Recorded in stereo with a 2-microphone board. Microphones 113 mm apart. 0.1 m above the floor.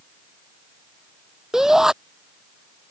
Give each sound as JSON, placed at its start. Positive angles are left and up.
{"t": 1.5, "sound": "a shout", "side_deg": -5}